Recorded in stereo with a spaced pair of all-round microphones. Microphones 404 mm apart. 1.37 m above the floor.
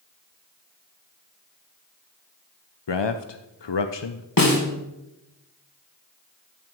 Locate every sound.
2.9 s a man speaking: 80° left, 0.7 m
4.4 s a snare drum: 55° left (ahead or behind), 2.0 m